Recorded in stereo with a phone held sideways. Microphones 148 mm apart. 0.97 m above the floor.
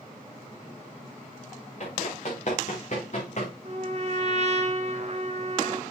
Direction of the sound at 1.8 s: 50° left (ahead or behind).